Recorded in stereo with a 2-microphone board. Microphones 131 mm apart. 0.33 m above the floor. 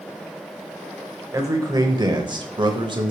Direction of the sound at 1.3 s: 25° right (ahead or behind).